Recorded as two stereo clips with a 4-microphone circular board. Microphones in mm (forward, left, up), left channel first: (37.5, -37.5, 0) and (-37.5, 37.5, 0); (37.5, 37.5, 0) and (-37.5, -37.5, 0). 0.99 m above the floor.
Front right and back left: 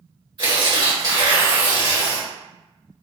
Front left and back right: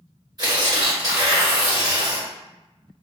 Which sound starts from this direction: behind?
Tearing paper, at 0.4 s.